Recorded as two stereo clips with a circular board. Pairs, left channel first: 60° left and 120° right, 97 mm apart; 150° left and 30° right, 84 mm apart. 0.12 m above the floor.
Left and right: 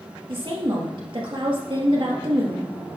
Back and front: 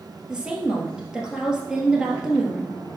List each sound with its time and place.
0.3 s a woman speaking: 110° right, 2 m